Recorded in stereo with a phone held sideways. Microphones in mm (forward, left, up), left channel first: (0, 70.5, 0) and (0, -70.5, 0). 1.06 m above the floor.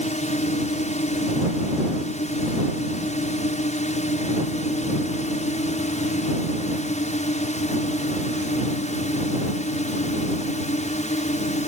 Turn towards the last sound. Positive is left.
turn(degrees=55)  # may be behind; listen again after turning